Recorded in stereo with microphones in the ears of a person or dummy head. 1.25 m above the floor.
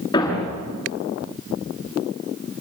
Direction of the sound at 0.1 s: 20° left (ahead or behind).